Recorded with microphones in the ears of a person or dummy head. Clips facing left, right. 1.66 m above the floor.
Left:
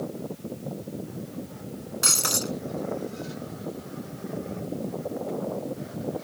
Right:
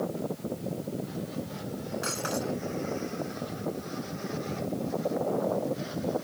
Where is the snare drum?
No snare drum in this recording.